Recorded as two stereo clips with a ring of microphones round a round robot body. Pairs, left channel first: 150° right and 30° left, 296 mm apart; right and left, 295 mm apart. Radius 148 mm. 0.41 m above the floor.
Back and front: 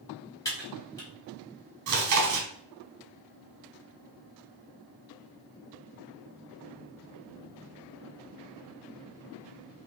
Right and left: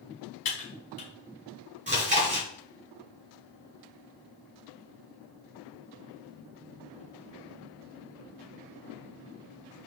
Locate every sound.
0.5 s typing on a keyboard: 75° right, 1.8 m
1.9 s chewing: 30° left, 1.5 m